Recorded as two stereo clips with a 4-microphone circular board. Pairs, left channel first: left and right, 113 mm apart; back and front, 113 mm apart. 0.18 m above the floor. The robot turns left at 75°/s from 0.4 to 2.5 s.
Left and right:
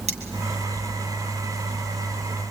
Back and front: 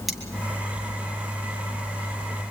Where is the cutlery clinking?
90° right, 3 m.